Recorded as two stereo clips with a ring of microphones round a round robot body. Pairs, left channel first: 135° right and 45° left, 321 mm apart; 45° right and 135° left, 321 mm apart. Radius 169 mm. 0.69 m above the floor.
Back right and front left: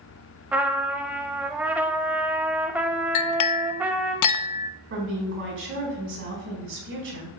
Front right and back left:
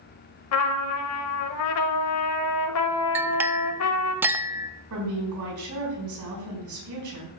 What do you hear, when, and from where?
0.5 s a trumpet: 40° right, 0.5 m
3.1 s a clink: 140° right, 0.6 m
4.9 s a woman speaking: 100° left, 5 m